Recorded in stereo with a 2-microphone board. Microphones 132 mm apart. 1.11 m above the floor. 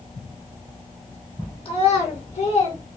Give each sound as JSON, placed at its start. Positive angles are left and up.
{"t": 1.6, "sound": "a child speaking", "side_deg": 55, "distance_m": 1.1}